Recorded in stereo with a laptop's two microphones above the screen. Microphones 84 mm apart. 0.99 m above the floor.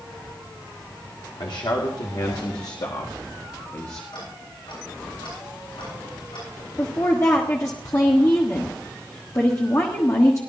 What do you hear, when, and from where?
1.4 s a man speaking: 80° left, 2 m; by 4.0 s 30° left (ahead or behind), 1.7 m
4.1 s ticking: 75° left (ahead or behind), 8.5 m
6.8 s a woman speaking: 40° left (ahead or behind), 1.4 m